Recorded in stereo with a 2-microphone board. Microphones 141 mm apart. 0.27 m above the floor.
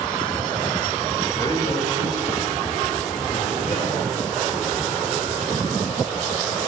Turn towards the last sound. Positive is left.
turn(degrees=35)  # may be behind; listen again after turning